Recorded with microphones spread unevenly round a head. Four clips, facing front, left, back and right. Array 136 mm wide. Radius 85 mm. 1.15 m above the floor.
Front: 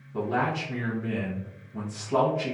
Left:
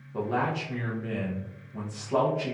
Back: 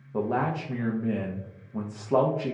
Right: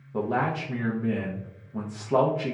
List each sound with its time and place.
0.1 s a man speaking: 165° right, 0.5 m